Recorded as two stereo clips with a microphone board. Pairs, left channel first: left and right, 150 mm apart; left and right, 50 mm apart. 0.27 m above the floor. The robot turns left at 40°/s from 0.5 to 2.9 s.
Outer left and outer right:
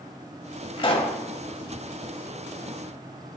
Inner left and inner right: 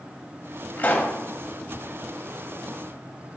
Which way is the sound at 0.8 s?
40° left (ahead or behind).